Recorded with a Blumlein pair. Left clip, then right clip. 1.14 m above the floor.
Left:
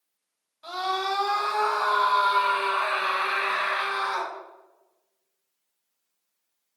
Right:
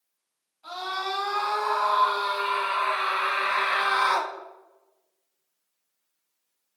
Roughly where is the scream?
Ahead left.